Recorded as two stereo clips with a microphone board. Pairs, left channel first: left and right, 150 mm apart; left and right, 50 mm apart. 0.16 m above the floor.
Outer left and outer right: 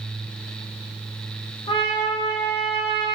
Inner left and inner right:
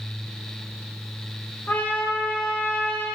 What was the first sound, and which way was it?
A trumpet, 40° left (ahead or behind).